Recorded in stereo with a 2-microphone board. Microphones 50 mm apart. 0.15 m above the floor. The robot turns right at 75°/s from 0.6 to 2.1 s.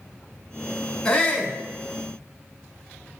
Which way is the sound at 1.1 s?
10° left (ahead or behind).